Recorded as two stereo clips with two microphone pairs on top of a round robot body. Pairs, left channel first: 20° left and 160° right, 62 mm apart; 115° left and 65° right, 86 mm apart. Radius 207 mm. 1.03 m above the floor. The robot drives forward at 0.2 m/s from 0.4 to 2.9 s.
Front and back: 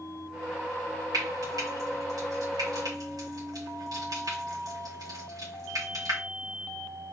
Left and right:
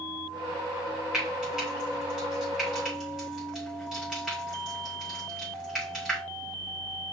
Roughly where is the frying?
Behind right.